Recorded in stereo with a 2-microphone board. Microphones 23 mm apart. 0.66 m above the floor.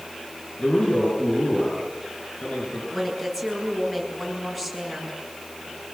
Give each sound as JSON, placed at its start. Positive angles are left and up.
{"t": 0.6, "sound": "a man speaking", "side_deg": 70, "distance_m": 9.5}
{"t": 2.9, "sound": "a woman speaking", "side_deg": 10, "distance_m": 8.5}